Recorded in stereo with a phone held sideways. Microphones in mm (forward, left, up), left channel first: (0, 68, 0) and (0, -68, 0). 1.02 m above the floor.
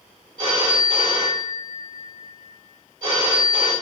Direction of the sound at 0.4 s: 70° right (ahead or behind).